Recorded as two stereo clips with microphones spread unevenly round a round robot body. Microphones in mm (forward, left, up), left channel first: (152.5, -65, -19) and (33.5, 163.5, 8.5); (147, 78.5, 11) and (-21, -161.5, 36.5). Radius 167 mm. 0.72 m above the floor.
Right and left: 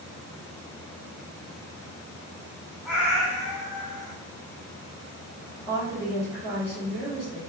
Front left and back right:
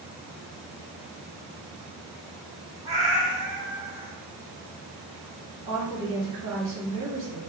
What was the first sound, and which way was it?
A cat meowing, 165° right.